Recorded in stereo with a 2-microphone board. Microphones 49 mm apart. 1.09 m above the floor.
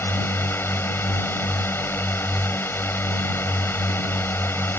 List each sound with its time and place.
0.0 s a drone: 45° left (ahead or behind)